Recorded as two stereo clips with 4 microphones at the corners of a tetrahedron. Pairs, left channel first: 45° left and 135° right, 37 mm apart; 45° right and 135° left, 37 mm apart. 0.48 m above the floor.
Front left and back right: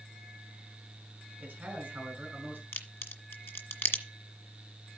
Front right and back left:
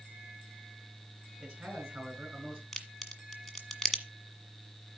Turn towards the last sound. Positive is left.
turn(degrees=35)